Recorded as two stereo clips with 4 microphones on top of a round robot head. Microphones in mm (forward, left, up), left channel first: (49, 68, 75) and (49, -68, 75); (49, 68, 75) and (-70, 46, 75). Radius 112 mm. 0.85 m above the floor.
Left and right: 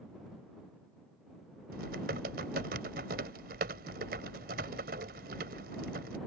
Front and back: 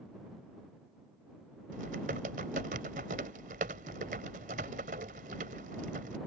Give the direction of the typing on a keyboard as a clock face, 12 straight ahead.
4 o'clock.